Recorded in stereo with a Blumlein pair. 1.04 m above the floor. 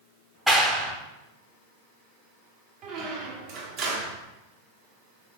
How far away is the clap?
About 0.7 m.